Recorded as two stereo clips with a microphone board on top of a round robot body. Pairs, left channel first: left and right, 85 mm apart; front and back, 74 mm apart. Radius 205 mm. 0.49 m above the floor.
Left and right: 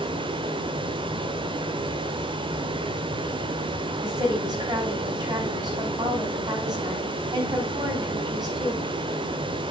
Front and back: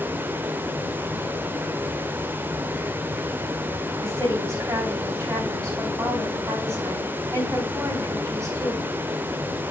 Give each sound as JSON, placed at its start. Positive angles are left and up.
{"t": 0.0, "sound": "running water", "azimuth_deg": -115, "distance_m": 0.8}
{"t": 4.0, "sound": "a woman speaking", "azimuth_deg": -130, "distance_m": 4.5}